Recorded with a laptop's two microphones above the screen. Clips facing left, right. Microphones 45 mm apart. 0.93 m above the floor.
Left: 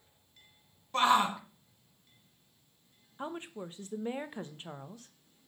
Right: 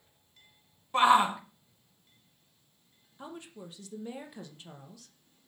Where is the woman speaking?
35° left (ahead or behind), 0.8 m.